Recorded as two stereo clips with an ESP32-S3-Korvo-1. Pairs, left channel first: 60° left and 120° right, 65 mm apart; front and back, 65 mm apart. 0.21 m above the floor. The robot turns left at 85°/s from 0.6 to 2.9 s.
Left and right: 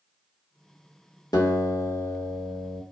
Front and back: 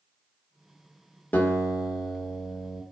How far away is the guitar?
About 1.0 m.